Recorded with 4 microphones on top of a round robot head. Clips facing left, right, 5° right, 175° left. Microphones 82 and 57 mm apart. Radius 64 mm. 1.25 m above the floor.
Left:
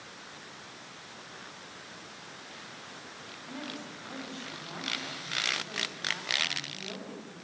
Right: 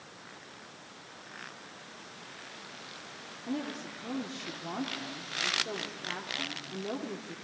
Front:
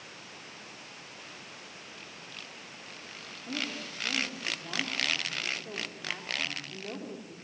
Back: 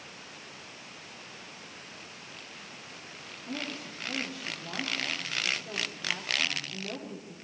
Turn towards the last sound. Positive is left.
turn(degrees=-80)